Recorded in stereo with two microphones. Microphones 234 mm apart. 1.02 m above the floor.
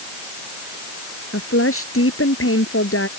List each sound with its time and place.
1.3 s a woman speaking: 65° left (ahead or behind)